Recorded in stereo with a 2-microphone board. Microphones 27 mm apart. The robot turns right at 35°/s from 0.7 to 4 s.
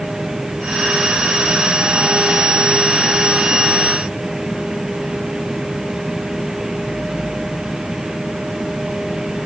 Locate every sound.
Only background noise.